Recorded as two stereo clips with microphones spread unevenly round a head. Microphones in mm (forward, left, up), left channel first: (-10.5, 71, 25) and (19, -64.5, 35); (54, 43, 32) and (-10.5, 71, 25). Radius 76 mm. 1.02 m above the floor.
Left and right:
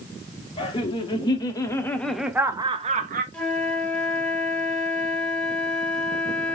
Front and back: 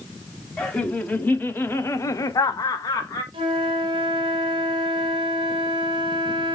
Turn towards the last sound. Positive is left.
turn(degrees=-175)